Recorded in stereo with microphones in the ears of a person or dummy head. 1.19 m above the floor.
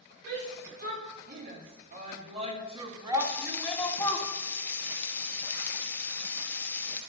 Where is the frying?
10° left (ahead or behind), 1.6 m.